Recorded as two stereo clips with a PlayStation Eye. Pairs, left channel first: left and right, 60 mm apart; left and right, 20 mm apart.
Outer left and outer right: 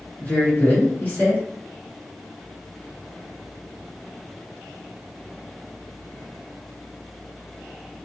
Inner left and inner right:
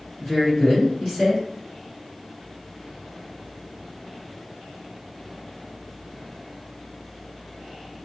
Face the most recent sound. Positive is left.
turn(degrees=30)  # may be behind; listen again after turning